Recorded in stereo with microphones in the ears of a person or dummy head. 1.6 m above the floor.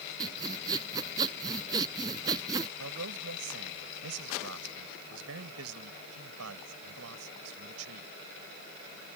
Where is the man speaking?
80° right.